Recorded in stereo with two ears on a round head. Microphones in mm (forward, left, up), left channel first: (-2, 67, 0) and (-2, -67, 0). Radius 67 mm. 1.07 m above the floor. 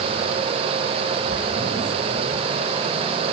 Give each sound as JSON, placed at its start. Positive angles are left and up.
{"t": 1.3, "sound": "whispering", "side_deg": -35, "distance_m": 5.0}